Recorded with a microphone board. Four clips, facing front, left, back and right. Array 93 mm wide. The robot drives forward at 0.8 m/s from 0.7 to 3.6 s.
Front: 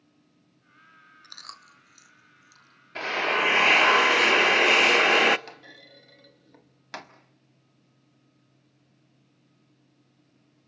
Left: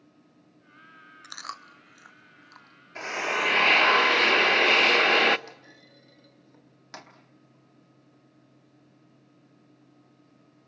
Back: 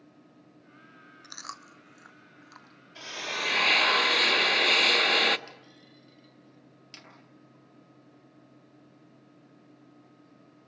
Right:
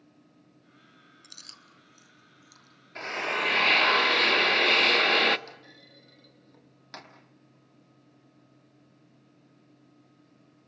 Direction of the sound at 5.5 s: 10° left.